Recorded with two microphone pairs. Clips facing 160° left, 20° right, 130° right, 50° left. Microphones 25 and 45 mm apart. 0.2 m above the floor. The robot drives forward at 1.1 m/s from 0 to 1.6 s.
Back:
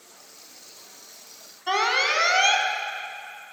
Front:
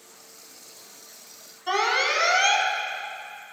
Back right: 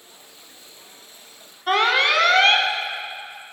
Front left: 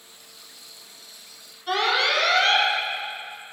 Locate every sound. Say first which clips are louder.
1.7 s an alarm: back 1 dB, back right 4 dB; 130° right, 1.1 m